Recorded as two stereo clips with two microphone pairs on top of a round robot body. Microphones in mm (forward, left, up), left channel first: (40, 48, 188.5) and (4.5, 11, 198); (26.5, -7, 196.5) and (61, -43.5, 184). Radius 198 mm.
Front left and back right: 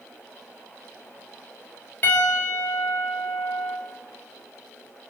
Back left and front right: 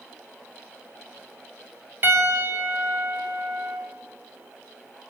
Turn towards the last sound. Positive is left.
turn(degrees=-5)